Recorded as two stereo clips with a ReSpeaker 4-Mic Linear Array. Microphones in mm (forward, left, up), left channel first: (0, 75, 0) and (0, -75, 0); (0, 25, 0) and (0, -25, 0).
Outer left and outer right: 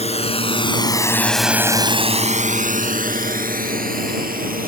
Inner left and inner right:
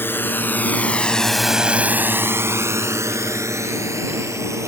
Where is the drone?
50° left (ahead or behind); by 4.7 s 85° right.